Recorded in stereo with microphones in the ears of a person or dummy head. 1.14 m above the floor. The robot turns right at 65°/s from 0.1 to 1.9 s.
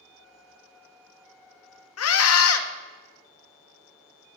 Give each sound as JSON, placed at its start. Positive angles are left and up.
{"t": 2.0, "sound": "a scream", "side_deg": 70, "distance_m": 1.0}